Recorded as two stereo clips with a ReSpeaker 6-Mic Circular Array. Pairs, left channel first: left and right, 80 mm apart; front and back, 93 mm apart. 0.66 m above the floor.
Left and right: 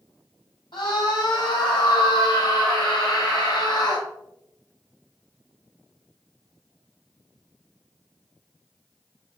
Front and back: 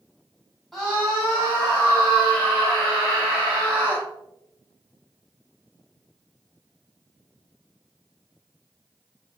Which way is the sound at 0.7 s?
85° left.